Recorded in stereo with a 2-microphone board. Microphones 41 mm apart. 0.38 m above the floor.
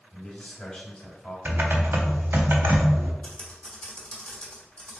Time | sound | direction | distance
0.1 | a man speaking | 10° left (ahead or behind) | 1.1 m
1.4 | typing on a keyboard | 65° right (ahead or behind) | 0.6 m
3.2 | typing on a keyboard | 25° left (ahead or behind) | 1.3 m